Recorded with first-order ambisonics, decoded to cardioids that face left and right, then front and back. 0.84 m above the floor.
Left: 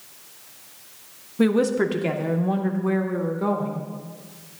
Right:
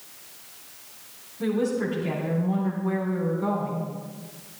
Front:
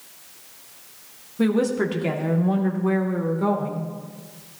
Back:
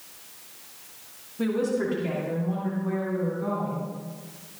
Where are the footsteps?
No footsteps in this recording.